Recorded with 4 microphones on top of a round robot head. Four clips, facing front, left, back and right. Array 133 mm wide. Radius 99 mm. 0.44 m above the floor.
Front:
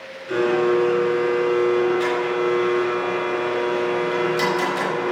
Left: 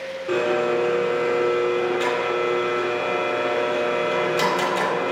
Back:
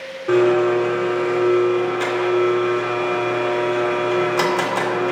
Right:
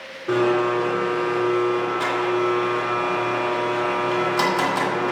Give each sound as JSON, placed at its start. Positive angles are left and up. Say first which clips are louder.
{"t": 0.3, "sound": "a blender", "louder": "right 2 dB, back 3 dB", "azimuth_deg": -145, "distance_m": 2.5}